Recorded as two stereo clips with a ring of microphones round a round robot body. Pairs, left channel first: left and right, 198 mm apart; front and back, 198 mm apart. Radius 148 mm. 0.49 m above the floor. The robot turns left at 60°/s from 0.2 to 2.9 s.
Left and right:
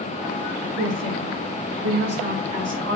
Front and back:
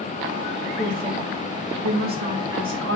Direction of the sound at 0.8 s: 65° right.